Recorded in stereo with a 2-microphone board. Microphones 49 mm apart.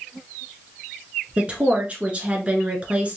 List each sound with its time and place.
1.4 s a woman speaking: 25° right (ahead or behind), 1.5 m